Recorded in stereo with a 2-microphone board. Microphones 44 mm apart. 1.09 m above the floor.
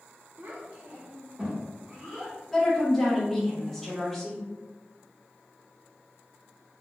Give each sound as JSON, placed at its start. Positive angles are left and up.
{"t": 0.4, "sound": "a child speaking", "side_deg": -60, "distance_m": 0.5}
{"t": 2.5, "sound": "a woman speaking", "side_deg": 5, "distance_m": 0.9}